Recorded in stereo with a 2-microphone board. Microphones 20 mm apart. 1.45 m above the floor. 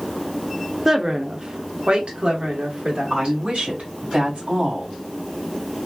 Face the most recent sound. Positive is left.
turn(degrees=-80)